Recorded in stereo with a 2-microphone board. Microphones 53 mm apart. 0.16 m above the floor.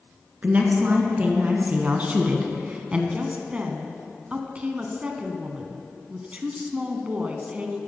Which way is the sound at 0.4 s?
35° right (ahead or behind).